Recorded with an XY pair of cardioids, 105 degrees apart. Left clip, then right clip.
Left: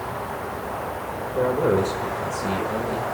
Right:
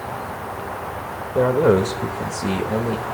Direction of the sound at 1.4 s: 45° right.